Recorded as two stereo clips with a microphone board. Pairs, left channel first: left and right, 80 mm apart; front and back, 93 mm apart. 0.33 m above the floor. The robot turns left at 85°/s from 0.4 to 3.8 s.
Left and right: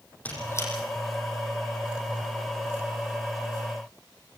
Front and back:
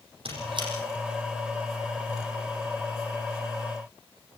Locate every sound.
0.2 s a squeak: 160° left, 8.5 m; by 0.7 s 135° left, 8.5 m